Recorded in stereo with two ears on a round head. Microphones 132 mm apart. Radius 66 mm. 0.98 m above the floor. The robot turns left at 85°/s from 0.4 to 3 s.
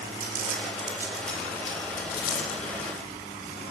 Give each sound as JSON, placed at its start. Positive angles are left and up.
{"t": 0.2, "sound": "crumpling", "side_deg": -65, "distance_m": 3.5}